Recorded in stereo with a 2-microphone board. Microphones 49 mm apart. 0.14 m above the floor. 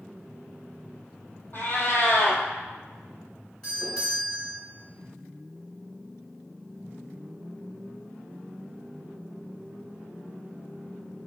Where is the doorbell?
15° left (ahead or behind), 1.9 m.